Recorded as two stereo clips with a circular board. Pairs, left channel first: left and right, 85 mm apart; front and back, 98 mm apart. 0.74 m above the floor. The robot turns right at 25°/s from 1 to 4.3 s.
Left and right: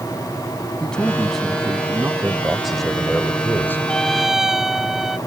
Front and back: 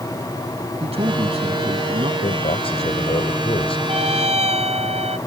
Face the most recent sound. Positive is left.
turn(degrees=-175)